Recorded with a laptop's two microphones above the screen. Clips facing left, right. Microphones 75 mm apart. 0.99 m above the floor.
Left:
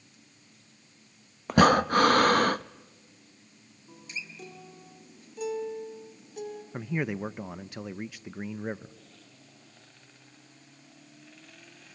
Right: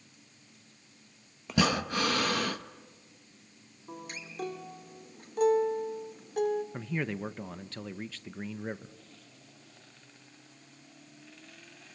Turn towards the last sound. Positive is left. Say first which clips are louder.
# left 3 dB
turn(degrees=15)  # may be behind; listen again after turning